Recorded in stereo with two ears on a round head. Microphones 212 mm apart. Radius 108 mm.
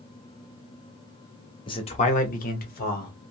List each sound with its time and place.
1.7 s a man speaking: 20° left (ahead or behind), 0.7 m; by 3.1 s 40° left (ahead or behind), 1.3 m